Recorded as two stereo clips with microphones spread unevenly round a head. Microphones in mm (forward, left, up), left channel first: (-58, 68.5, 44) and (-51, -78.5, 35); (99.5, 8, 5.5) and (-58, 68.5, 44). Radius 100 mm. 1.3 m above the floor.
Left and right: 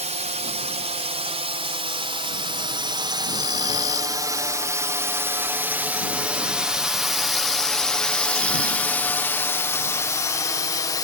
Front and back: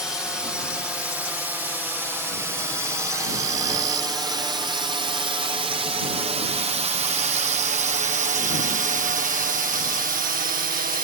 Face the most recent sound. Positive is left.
turn(degrees=145)